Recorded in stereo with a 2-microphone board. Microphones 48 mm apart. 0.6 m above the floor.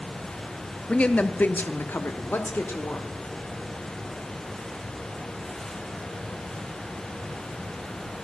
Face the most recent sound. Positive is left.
turn(degrees=50)  # may be behind; listen again after turning